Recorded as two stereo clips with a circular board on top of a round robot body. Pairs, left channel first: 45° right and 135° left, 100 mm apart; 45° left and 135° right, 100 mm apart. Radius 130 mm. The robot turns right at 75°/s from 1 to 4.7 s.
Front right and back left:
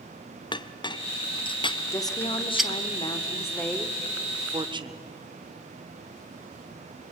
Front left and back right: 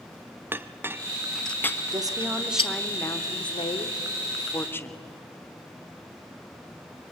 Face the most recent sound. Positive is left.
turn(degrees=110)